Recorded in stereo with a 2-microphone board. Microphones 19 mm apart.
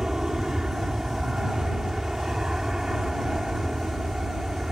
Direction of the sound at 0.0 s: 30° right (ahead or behind).